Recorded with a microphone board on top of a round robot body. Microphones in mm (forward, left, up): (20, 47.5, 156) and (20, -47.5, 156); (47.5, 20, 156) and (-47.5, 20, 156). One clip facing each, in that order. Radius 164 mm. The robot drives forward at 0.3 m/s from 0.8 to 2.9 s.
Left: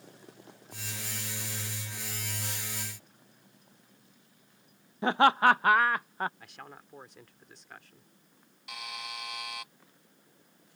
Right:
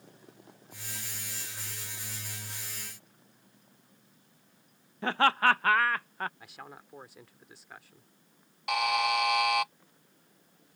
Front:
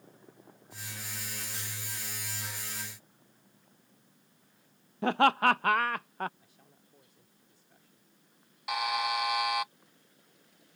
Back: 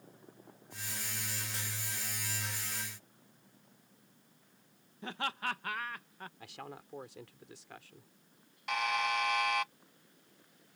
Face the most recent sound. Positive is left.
turn(degrees=-80)